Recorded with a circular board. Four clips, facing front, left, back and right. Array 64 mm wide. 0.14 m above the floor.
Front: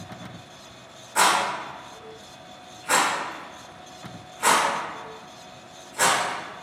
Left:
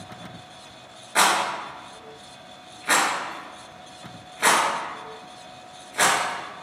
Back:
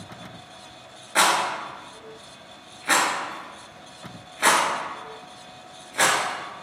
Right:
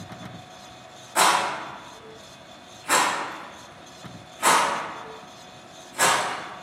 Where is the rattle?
140° left, 0.8 m.